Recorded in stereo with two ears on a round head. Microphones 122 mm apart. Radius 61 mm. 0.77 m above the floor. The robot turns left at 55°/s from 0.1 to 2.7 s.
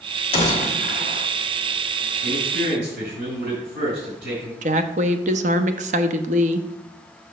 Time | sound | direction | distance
0.3 | a gunshot | 140° left | 1.2 m
2.2 | a man speaking | 60° right (ahead or behind) | 4.5 m
4.6 | a woman speaking | 55° right (ahead or behind) | 0.8 m